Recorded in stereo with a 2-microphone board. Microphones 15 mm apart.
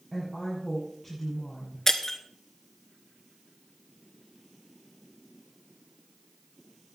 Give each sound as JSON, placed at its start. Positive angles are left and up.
{"t": 0.1, "sound": "a woman speaking", "side_deg": 10, "distance_m": 6.0}
{"t": 1.9, "sound": "breaking glass", "side_deg": 25, "distance_m": 1.1}